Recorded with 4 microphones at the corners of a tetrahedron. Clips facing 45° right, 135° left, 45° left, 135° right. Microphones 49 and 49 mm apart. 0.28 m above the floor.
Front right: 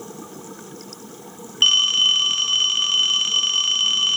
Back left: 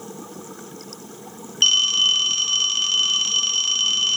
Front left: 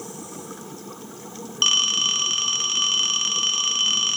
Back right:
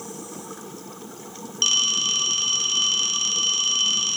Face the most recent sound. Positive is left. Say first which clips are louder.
# front right 1 dB, front left 2 dB
turn(degrees=10)